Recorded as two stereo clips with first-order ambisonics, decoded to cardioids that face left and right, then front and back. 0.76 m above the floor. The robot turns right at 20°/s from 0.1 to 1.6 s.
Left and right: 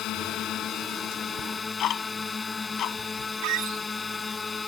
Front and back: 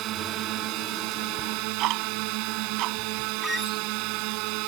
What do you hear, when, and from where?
0.0 s a drone: 135° left; by 4.7 s 165° left
1.4 s ticking: 135° left; by 3.3 s 140° left
3.4 s a squeak: 85° right